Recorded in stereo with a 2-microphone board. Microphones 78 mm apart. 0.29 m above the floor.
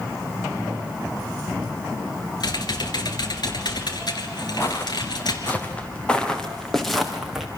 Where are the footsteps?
35° left (ahead or behind), 3.5 m; by 7.5 s 5° right (ahead or behind), 4 m.